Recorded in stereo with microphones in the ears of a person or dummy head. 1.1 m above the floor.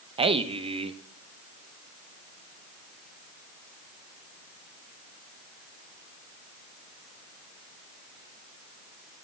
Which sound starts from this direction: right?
A man speaking, at 0.2 s.